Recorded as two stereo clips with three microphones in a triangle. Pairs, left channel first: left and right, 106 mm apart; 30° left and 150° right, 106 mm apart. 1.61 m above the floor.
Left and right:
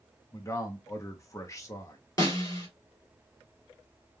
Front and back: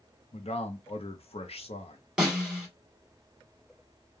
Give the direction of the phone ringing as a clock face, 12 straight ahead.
No phone ringing in this recording.